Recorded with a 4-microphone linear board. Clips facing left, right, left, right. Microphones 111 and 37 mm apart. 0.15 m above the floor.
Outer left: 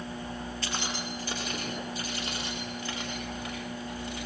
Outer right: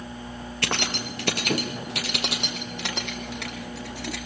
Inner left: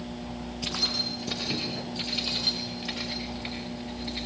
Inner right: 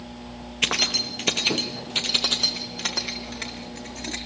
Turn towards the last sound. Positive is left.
turn(degrees=-75)  # may be behind; listen again after turning